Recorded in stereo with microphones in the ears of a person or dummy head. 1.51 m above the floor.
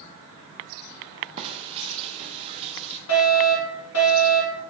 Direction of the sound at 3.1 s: 65° left (ahead or behind).